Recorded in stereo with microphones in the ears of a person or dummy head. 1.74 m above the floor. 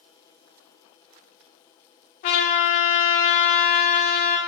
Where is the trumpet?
40° left (ahead or behind), 1.1 m.